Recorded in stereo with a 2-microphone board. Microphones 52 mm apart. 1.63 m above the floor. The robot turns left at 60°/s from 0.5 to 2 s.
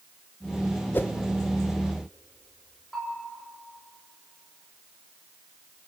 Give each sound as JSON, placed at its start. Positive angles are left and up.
{"t": 0.9, "sound": "a whoosh", "side_deg": 35, "distance_m": 0.8}
{"t": 2.9, "sound": "a bell", "side_deg": 5, "distance_m": 7.5}